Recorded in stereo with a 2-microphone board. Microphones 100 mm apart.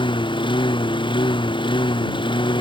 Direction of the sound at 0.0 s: 55° left (ahead or behind).